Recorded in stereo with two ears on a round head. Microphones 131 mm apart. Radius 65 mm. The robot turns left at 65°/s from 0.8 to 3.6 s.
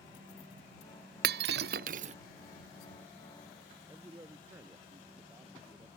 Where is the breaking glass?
75° right (ahead or behind); by 2.1 s 45° right (ahead or behind).